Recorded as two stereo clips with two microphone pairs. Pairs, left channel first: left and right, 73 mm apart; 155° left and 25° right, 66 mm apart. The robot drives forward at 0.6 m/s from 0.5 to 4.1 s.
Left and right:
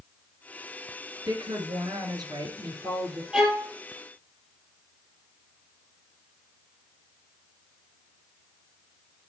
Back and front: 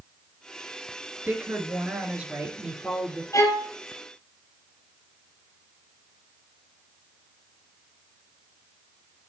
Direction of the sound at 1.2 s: 85° right.